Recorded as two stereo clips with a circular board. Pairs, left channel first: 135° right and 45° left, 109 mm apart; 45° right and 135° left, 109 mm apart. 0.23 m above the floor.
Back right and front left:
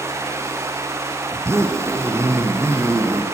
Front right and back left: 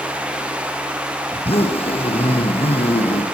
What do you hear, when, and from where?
1.3 s a zipper: 20° right, 4 m